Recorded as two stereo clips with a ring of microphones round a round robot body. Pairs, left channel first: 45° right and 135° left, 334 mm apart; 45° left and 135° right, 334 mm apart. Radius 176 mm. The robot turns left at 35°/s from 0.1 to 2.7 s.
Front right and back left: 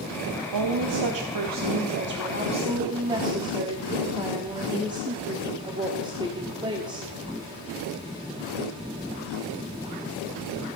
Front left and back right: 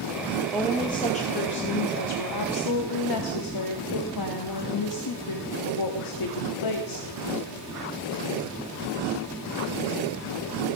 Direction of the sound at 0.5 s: 135° left.